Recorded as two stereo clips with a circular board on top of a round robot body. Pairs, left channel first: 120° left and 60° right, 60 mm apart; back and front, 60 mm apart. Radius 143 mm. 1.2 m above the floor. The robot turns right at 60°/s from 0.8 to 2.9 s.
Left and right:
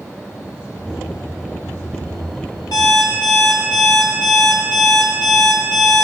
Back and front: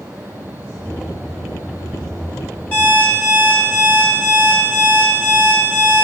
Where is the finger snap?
No finger snap in this recording.